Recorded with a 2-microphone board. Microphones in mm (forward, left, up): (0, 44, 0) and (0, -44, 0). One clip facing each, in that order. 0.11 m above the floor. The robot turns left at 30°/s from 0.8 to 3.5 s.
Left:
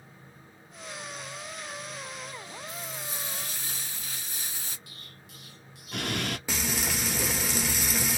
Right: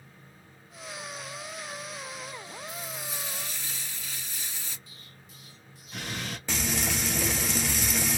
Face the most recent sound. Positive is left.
turn(degrees=5)  # may be behind; listen again after turning